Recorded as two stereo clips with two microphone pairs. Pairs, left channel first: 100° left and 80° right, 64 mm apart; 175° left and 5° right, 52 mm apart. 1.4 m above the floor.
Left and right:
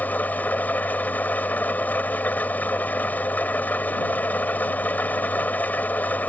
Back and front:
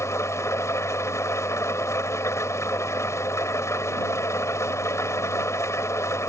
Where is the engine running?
160° left.